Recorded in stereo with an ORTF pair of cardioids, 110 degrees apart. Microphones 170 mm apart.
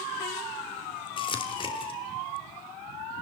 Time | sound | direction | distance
1.2 | crumpling | 30° left | 3.5 m